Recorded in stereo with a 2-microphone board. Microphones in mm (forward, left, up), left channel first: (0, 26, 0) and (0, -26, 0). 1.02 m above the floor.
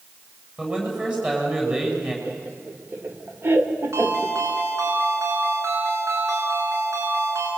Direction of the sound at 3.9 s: 70° right (ahead or behind).